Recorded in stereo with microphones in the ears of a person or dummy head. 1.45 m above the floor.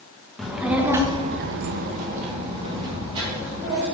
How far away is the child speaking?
About 1.1 m.